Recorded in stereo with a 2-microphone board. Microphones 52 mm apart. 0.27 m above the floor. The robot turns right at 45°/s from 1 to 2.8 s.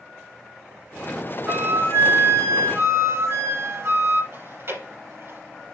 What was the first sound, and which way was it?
A flute, 135° right.